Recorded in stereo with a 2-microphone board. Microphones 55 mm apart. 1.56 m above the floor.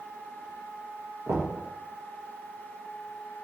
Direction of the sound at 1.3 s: 55° right (ahead or behind).